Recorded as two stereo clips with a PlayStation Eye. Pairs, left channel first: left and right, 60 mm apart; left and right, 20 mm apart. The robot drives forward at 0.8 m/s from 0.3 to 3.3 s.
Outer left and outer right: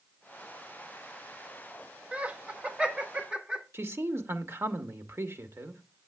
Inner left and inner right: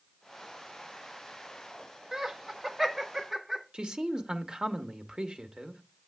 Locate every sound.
2.1 s laughter: 20° right (ahead or behind), 1.0 m; by 3.6 s 15° right (ahead or behind), 1.5 m
3.7 s a man speaking: 45° right (ahead or behind), 1.0 m